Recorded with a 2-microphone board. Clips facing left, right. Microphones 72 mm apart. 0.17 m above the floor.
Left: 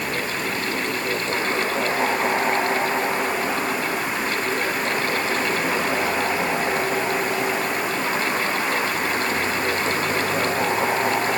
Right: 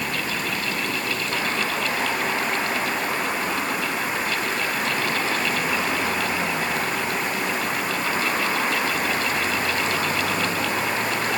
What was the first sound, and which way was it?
Only background noise.